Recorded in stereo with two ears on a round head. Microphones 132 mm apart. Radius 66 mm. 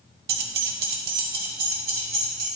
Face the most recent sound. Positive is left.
turn(degrees=-60)  # may be behind; listen again after turning